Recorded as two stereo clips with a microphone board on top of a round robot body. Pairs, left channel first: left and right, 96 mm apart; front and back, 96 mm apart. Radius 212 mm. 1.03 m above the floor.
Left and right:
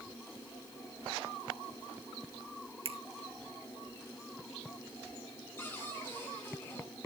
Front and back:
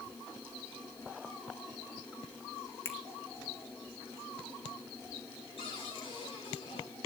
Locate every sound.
2.9 s a finger snap: 65° right, 1.8 m
5.6 s a cupboard door: 25° left, 10 m